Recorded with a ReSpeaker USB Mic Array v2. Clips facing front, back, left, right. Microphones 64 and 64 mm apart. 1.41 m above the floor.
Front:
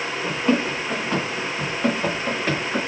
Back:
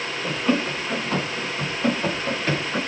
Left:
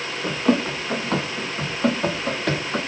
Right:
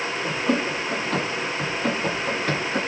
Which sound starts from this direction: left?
Running footsteps, at 0.2 s.